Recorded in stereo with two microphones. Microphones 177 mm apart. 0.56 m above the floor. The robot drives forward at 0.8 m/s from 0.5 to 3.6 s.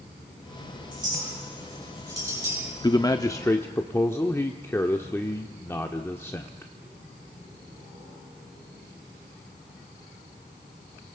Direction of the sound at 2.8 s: 20° left (ahead or behind).